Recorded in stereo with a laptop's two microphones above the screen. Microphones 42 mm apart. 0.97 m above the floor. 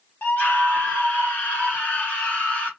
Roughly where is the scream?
Left.